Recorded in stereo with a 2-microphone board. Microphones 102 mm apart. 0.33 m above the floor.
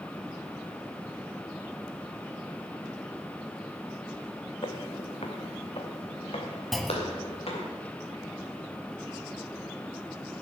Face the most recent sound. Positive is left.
turn(degrees=0)  # may be behind; listen again after turning